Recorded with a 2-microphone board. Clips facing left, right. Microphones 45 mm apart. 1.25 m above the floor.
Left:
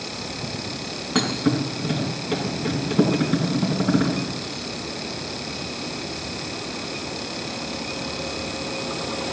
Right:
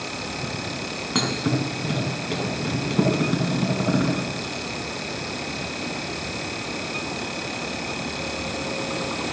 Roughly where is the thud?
Centre.